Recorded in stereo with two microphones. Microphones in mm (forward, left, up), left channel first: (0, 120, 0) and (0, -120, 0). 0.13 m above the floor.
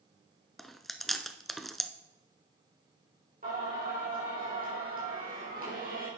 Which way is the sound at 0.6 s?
Centre (ahead or behind).